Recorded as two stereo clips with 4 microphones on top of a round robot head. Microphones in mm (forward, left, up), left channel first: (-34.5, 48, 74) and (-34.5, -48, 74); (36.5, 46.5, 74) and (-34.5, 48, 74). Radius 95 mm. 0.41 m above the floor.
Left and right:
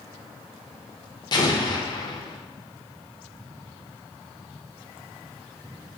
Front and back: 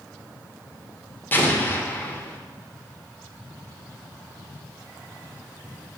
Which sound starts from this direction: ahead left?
An explosion, at 1.3 s.